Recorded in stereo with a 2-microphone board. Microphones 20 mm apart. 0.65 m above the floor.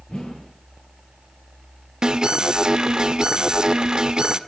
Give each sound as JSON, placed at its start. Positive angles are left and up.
{"t": 0.1, "sound": "a whoosh", "side_deg": 50, "distance_m": 10.0}
{"t": 2.0, "sound": "an alarm", "side_deg": -40, "distance_m": 1.4}